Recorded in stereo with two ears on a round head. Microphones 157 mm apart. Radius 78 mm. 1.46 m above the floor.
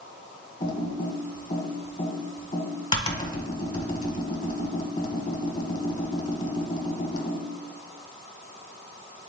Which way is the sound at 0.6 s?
30° left (ahead or behind).